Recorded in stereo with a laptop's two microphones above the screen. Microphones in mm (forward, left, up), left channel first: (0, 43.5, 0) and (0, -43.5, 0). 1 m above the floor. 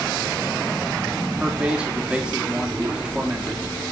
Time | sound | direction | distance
1.4 | a man speaking | 10° right (ahead or behind) | 3 m